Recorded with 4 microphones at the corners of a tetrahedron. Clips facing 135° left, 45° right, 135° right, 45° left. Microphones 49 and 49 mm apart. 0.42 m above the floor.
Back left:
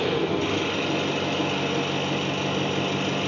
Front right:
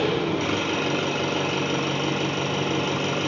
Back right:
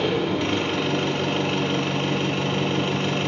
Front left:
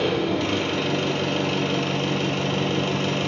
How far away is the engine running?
About 1.1 m.